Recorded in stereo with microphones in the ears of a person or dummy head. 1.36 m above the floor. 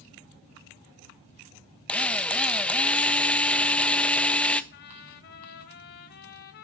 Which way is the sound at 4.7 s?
45° left (ahead or behind).